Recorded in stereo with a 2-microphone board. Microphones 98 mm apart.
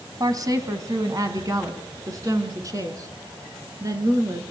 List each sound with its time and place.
0.2 s a woman speaking: 40° right (ahead or behind), 2.5 m; by 4.4 s 35° right (ahead or behind), 4.5 m